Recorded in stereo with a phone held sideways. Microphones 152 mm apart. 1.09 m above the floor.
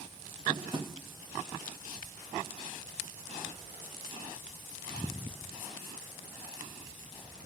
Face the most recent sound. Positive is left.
turn(degrees=-35)  # may be behind; listen again after turning